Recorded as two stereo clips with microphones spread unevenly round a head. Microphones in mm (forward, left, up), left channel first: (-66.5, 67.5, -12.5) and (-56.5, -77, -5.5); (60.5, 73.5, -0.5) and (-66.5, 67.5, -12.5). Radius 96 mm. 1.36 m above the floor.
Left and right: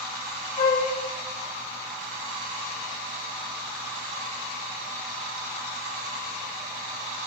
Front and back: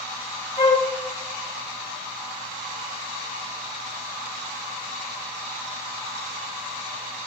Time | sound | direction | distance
0.6 | a flute | 40° left | 1.2 m